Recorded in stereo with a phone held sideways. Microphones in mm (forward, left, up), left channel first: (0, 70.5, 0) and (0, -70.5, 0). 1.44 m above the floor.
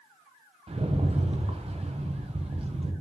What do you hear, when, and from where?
0.7 s a rattle: 45° right (ahead or behind), 0.7 m